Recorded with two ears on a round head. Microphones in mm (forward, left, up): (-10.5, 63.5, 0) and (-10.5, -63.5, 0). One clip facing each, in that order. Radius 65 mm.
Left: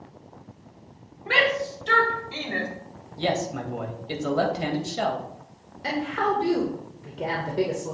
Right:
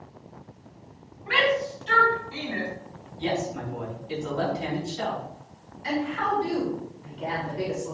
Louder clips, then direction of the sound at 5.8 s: Left 1 dB; 60° left (ahead or behind).